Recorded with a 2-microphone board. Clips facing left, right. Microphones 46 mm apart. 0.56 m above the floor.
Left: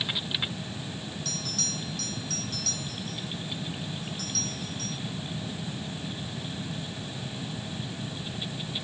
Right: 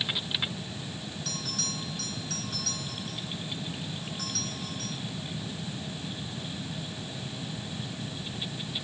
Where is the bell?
15° right (ahead or behind), 3.5 m.